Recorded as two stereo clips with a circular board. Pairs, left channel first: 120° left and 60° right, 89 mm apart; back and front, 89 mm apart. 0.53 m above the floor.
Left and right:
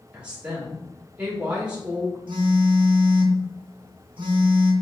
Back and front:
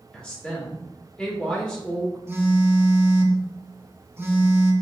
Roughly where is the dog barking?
I don't hear a dog barking.